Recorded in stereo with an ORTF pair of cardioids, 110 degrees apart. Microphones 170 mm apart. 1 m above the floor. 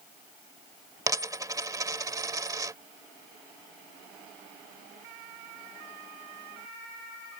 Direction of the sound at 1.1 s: 20° right.